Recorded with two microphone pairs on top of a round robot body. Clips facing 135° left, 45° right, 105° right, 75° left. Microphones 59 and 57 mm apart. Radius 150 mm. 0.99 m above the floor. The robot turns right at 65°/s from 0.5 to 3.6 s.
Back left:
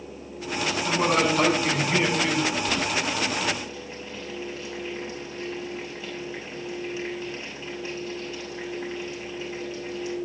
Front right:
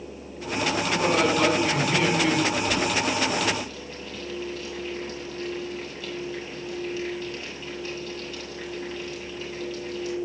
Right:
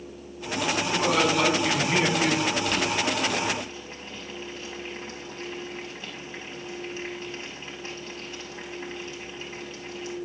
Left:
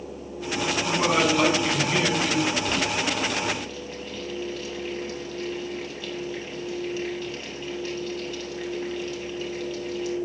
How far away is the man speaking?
About 5 m.